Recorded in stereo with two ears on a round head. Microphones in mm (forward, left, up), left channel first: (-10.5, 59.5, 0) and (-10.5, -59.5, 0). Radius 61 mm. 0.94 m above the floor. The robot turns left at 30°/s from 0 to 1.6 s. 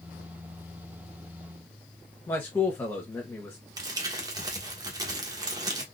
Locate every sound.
2.3 s a man speaking: 15° left (ahead or behind), 0.9 m
3.8 s crumpling: 30° right (ahead or behind), 1.1 m